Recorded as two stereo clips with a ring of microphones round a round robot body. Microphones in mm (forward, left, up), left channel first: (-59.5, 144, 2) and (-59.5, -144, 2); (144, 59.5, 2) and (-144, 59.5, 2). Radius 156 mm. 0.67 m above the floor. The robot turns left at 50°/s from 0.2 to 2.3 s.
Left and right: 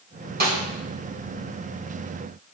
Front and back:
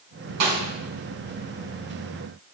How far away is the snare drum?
About 2.5 m.